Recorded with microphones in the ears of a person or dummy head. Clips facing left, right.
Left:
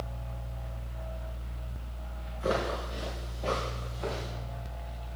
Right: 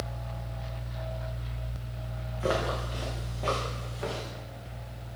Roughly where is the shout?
No shout in this recording.